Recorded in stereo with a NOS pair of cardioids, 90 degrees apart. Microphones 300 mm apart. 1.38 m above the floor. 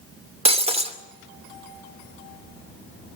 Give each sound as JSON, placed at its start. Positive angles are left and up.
{"t": 0.5, "sound": "breaking glass", "azimuth_deg": -20, "distance_m": 2.5}